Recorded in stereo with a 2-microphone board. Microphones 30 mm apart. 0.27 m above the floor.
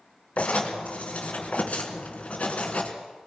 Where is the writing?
50° left (ahead or behind), 3.5 m.